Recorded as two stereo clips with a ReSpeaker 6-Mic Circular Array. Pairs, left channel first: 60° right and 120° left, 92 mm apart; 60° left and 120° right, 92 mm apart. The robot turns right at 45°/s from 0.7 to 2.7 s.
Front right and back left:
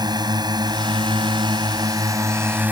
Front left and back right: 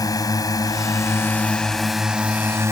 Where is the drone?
100° left; by 2.7 s 170° right.